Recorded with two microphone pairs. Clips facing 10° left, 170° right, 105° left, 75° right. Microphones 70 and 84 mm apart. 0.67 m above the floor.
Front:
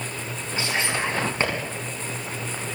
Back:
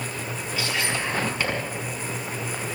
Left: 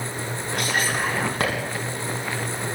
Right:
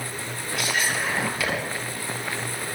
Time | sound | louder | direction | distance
0.6 | whispering | front 2 dB, left 2 dB | 65° left | 6 m